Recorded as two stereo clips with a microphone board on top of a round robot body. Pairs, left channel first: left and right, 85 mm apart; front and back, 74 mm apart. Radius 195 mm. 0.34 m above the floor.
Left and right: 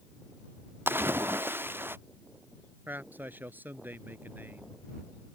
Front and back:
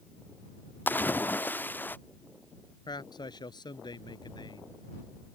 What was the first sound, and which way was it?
A splash, 45° right.